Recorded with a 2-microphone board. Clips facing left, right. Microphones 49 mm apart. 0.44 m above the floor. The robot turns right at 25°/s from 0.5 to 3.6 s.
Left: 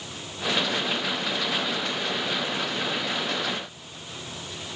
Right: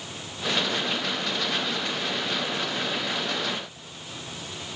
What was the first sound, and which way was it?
Only background noise.